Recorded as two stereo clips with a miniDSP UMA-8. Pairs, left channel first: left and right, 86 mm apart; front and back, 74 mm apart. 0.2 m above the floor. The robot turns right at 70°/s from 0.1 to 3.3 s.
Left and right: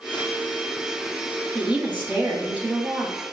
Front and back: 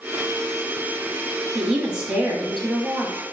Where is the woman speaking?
145° right, 1.0 m; by 3.1 s 35° right, 1.0 m.